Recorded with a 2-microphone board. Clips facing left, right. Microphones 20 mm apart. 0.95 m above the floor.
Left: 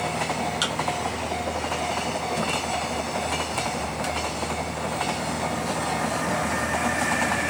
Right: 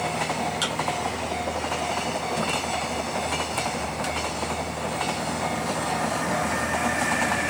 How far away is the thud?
About 2.5 m.